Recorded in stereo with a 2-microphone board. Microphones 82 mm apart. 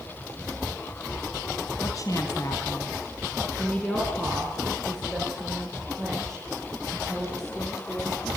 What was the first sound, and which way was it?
A woman speaking, 55° left (ahead or behind).